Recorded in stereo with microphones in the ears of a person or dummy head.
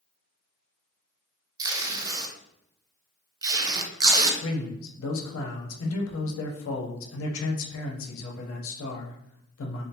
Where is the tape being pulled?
20° right (ahead or behind), 0.6 m.